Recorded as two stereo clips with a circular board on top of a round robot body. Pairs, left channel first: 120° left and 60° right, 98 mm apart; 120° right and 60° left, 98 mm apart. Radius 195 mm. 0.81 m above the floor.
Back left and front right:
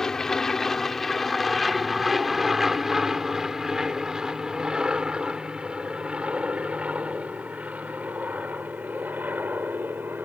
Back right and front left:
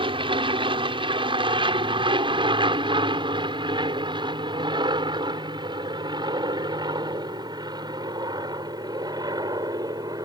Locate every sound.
0.0 s an aircraft: 35° left; by 10.3 s 10° left